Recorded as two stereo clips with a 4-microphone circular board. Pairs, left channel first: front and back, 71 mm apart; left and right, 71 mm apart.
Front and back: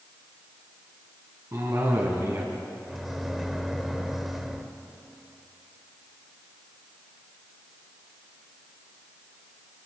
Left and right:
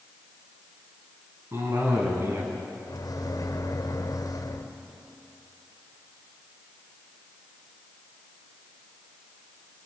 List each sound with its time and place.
1.5 s a cough: 140° right, 5 m
2.9 s a microwave: 95° left, 1.9 m